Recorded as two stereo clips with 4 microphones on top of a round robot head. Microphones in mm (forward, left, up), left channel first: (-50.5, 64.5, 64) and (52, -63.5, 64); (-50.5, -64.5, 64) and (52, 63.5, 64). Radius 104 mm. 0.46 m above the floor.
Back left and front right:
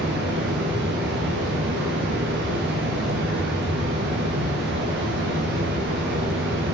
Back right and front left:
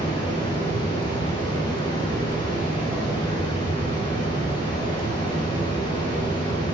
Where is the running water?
65° right, 5 m.